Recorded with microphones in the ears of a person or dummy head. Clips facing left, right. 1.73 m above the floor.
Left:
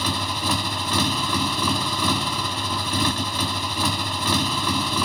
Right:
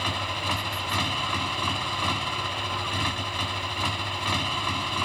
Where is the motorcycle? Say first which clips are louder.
Left 5 dB; 75° left (ahead or behind).